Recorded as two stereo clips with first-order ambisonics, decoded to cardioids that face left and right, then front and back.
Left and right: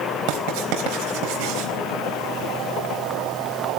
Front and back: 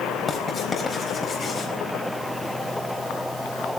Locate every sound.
0.3 s writing: 75° right, 4 m